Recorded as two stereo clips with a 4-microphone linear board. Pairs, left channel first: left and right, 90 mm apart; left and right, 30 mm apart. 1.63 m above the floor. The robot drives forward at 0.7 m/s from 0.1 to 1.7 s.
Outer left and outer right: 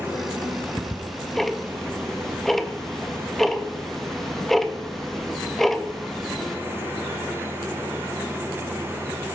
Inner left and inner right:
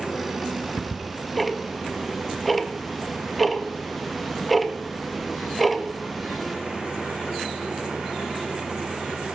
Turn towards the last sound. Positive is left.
turn(degrees=5)  # may be behind; listen again after turning